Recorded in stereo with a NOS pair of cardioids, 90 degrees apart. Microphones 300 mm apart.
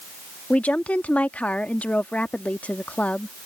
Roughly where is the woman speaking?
Ahead.